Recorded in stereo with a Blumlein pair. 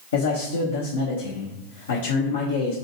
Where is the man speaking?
65° left, 0.6 m.